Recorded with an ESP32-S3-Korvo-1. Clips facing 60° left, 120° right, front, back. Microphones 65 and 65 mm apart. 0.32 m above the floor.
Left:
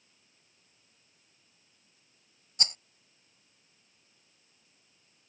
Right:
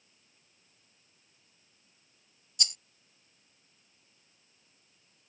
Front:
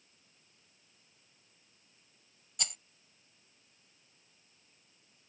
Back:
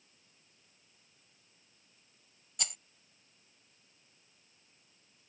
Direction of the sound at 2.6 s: 90° left.